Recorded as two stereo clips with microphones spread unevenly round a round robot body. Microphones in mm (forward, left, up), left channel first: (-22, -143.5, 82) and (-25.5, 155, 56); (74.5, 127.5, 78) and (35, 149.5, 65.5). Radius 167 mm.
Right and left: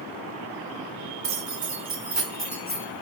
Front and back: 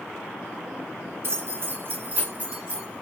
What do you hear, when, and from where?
1.2 s keys jangling: 140° left, 1.3 m; by 3.0 s 125° right, 0.8 m